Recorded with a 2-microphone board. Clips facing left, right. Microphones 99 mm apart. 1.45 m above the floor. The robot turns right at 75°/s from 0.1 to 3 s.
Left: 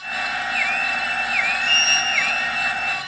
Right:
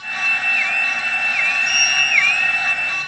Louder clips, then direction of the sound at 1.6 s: Even; 70° left (ahead or behind).